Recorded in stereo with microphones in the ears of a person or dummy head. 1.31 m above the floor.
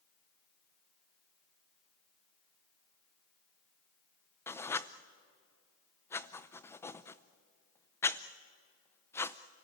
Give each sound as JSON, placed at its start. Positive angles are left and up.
{"t": 4.5, "sound": "writing", "side_deg": 10, "distance_m": 0.5}